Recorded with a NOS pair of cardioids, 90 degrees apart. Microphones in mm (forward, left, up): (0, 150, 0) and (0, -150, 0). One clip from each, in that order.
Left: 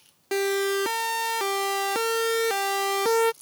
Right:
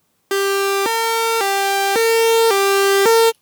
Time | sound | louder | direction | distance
0.3 | a siren | right 7 dB | 55° right | ?